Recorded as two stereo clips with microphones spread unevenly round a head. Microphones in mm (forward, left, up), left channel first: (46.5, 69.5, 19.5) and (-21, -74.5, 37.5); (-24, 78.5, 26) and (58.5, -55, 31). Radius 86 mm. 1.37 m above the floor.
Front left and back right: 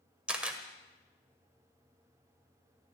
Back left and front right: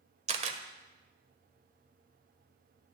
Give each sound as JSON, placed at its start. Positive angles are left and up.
{"t": 0.3, "sound": "a camera shutter", "azimuth_deg": -45, "distance_m": 1.3}